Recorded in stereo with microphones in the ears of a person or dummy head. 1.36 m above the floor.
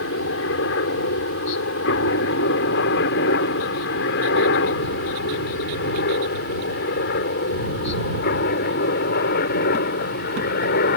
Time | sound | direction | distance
0.0 | a helicopter | 65° left (ahead or behind) | ?